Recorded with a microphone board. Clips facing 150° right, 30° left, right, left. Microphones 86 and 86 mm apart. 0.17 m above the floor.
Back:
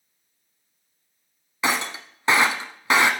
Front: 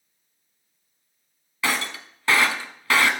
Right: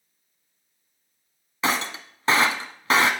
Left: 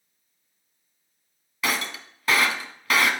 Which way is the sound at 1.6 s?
105° right.